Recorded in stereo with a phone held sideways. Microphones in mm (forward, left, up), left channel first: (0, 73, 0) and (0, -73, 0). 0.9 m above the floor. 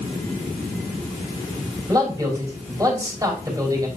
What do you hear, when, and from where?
1.9 s a man speaking: 25° right (ahead or behind), 3.5 m